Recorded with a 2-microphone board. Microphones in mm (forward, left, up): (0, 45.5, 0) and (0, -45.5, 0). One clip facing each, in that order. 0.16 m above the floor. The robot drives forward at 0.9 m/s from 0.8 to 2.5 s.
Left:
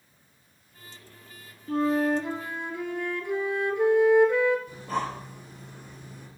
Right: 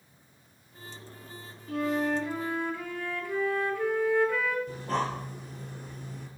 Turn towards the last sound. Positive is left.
turn(degrees=-45)  # may be behind; listen again after turning